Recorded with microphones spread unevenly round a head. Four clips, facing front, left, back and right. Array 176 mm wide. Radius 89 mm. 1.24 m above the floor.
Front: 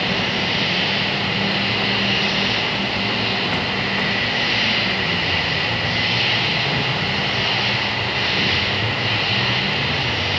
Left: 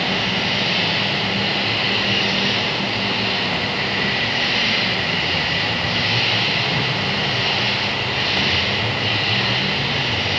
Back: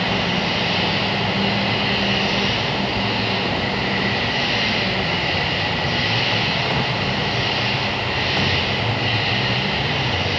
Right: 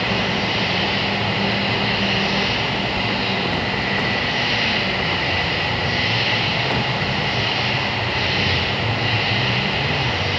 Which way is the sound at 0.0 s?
130° right.